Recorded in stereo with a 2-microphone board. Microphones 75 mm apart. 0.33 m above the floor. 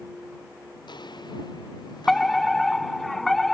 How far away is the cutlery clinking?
No cutlery clinking in this recording.